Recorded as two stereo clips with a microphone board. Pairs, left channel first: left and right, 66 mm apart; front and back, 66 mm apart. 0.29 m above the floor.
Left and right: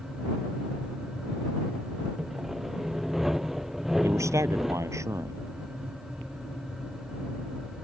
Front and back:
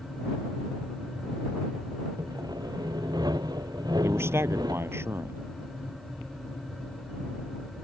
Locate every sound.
2.2 s sawing: 175° right
4.0 s a man speaking: 130° right